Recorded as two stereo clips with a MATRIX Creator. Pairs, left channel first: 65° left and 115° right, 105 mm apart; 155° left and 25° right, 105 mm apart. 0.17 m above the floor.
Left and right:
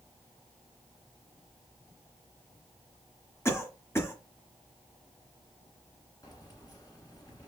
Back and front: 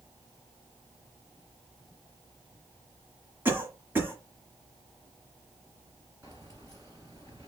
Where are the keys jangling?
25° left, 1.6 m.